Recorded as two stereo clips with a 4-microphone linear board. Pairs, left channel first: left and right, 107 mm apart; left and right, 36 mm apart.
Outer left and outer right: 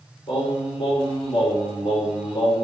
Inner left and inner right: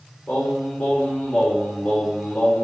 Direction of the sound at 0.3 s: 55° left (ahead or behind).